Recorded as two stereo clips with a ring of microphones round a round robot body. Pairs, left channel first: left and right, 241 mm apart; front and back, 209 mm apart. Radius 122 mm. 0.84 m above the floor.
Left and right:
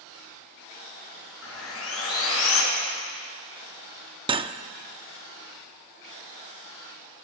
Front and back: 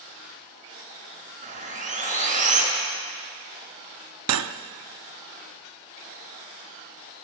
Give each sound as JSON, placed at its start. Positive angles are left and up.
{"t": 1.4, "sound": "sawing", "azimuth_deg": 125, "distance_m": 5.0}
{"t": 4.3, "sound": "cutlery clinking", "azimuth_deg": -160, "distance_m": 0.8}